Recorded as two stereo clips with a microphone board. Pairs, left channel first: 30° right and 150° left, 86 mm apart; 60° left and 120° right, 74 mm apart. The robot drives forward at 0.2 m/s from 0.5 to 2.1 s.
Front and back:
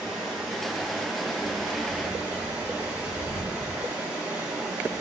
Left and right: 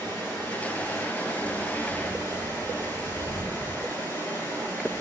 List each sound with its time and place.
0.0 s running water: 70° left, 1.7 m; by 5.0 s 90° left, 1.7 m